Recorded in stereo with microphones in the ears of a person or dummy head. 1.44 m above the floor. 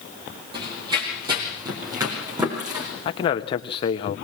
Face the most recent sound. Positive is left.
turn(degrees=30)  # may be behind; listen again after turning